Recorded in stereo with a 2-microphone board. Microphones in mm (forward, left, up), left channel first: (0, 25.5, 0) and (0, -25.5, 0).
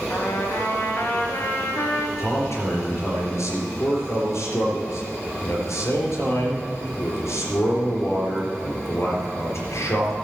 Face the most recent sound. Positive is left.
turn(degrees=65)  # may be behind; listen again after turning